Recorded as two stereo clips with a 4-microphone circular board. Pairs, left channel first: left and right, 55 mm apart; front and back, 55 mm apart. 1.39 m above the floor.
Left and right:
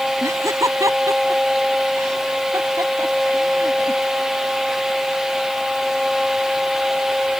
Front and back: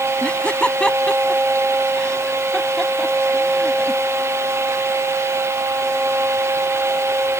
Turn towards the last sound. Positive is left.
turn(degrees=-85)